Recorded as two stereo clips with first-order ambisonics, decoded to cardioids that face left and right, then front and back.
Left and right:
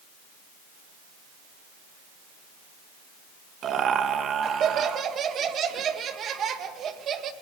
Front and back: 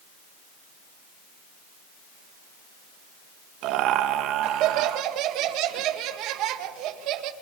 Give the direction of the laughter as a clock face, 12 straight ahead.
5 o'clock.